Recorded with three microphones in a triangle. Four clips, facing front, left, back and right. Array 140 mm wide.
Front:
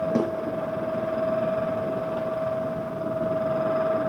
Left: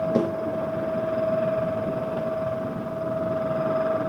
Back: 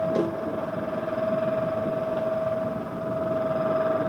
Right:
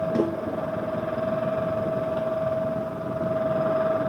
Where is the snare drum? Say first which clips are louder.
Even, front 1 dB; 30° left, 3.5 m.